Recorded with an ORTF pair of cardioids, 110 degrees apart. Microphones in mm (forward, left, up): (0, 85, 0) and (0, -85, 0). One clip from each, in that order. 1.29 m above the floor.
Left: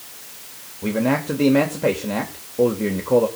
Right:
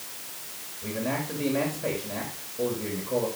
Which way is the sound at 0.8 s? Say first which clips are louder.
Left 9 dB; 65° left.